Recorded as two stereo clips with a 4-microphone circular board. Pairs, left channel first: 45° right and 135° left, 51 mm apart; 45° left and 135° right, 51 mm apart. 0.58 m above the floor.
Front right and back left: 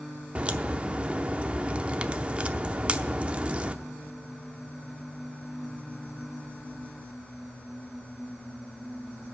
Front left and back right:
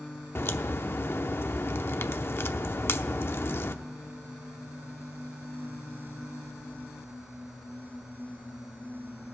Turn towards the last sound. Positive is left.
turn(degrees=75)